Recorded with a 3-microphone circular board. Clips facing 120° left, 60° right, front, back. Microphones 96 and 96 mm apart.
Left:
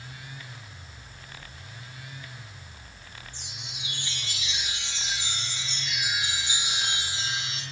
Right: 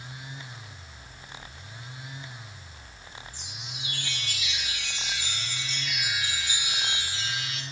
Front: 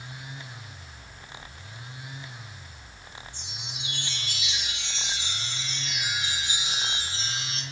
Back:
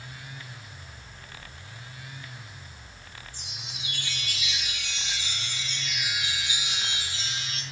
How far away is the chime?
About 4.5 m.